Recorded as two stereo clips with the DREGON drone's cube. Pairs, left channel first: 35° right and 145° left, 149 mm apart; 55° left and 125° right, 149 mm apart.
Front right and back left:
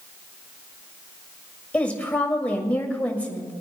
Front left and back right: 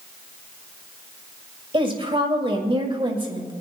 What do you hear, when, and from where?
1.7 s a woman speaking: 110° right, 1.8 m